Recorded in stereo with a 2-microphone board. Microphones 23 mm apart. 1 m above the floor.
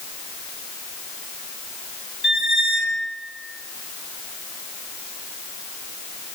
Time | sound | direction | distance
2.2 | a squeak | 5° right (ahead or behind) | 1.2 m